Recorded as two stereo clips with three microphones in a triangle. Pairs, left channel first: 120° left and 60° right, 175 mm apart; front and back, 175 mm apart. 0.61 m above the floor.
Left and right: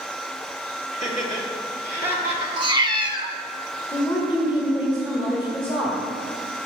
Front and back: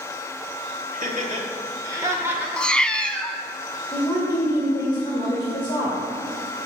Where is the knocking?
I don't hear knocking.